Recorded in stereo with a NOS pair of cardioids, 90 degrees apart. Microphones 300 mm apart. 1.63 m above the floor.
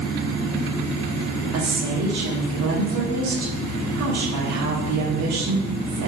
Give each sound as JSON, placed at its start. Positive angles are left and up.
{"t": 1.5, "sound": "a woman speaking", "azimuth_deg": -70, "distance_m": 1.2}